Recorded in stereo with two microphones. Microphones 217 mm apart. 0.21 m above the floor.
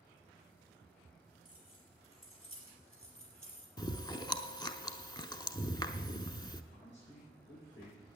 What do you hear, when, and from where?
1.4 s keys jangling: 75° left (ahead or behind), 4 m
3.8 s chewing: 20° left (ahead or behind), 0.6 m
6.7 s a man speaking: 60° left (ahead or behind), 7.5 m